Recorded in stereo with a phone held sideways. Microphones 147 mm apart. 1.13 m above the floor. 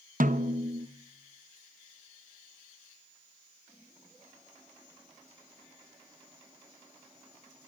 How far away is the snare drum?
About 0.6 m.